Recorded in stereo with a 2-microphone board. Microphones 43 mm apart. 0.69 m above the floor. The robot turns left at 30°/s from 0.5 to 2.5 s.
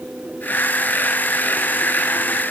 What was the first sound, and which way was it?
Only background noise.